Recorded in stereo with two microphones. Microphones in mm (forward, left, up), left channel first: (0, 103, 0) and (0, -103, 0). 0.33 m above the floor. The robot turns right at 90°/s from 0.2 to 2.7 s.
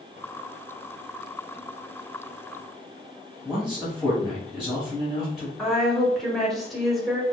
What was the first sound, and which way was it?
A man speaking, centre (ahead or behind).